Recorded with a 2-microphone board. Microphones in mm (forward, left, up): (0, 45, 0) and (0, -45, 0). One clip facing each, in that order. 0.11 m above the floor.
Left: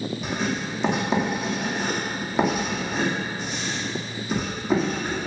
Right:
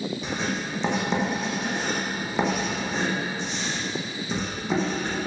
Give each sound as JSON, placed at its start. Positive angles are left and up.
{"t": 0.2, "sound": "writing", "side_deg": 5, "distance_m": 2.5}